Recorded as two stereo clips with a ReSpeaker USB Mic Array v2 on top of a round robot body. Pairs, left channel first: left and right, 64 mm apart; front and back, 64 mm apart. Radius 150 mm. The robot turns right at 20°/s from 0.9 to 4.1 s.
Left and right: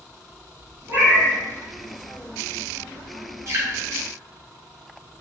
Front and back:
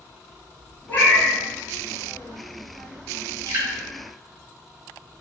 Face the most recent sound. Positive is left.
turn(degrees=-125)